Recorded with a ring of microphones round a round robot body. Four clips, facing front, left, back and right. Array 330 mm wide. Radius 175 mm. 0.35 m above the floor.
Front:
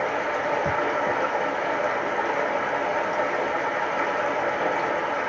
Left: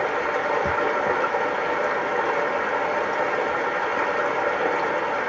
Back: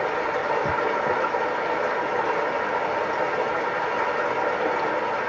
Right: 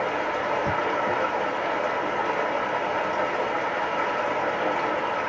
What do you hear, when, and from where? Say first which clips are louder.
0.0 s running water: left 2 dB, back 1 dB; 115° left, 1.3 m